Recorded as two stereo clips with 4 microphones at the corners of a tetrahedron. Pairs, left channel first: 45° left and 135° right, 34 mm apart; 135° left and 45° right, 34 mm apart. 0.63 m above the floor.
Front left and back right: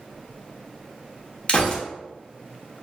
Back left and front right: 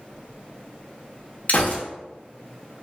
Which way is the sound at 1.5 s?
100° left.